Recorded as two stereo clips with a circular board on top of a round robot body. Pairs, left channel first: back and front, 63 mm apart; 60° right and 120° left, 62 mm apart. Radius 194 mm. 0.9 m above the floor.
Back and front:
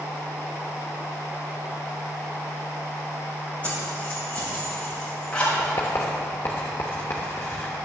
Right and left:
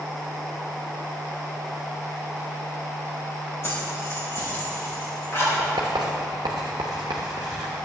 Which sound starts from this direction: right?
Keys jangling, at 3.6 s.